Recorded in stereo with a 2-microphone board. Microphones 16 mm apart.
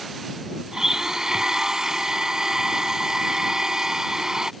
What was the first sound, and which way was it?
A blender, 35° right (ahead or behind).